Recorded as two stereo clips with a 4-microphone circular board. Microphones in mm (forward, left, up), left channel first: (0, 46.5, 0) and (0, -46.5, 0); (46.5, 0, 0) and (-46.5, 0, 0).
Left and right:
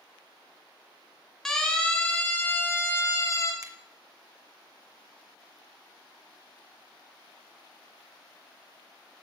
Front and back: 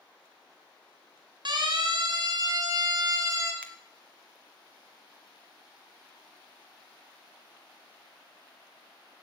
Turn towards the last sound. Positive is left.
turn(degrees=-70)